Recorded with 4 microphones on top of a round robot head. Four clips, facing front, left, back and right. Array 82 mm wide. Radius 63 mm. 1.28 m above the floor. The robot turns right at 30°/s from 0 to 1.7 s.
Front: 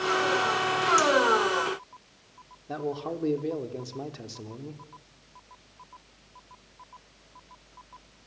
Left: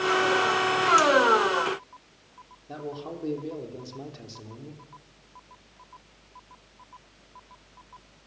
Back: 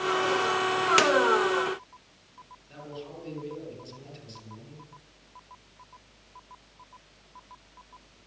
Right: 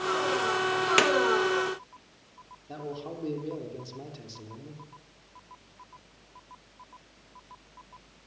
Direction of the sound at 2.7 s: Straight ahead.